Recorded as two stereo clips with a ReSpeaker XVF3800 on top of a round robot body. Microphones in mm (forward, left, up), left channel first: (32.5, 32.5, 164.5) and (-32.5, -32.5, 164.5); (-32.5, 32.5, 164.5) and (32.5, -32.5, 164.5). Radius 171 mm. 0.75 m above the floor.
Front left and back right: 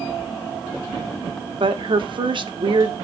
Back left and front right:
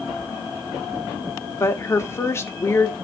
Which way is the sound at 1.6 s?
165° right.